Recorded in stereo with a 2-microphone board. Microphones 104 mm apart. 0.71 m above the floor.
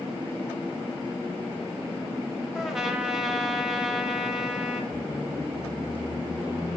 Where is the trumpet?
5° right (ahead or behind), 0.6 m.